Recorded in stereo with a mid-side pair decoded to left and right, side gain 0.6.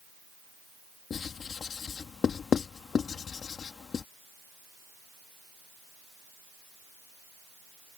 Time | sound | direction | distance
1.1 | writing | 35° left | ?